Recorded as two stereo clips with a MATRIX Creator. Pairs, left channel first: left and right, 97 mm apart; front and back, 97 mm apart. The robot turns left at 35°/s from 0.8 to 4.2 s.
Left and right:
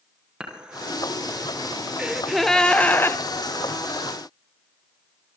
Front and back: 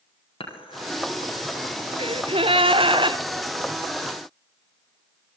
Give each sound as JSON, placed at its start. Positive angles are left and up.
{"t": 0.4, "sound": "dishes clattering", "azimuth_deg": -10, "distance_m": 5.5}
{"t": 2.0, "sound": "a gasp", "azimuth_deg": -170, "distance_m": 1.2}